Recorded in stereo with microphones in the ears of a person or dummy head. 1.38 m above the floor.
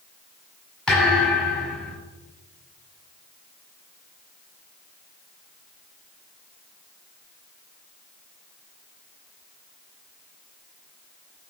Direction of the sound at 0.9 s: 5° right (ahead or behind).